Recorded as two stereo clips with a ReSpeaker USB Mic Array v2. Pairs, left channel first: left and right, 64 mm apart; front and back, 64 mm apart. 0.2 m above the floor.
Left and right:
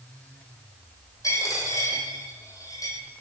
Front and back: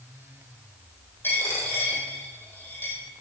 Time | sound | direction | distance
1.2 | a dropped coin | 55° left | 2 m